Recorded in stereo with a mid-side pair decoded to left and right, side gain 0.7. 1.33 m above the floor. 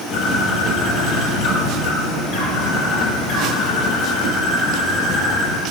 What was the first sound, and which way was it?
A bird, 50° left.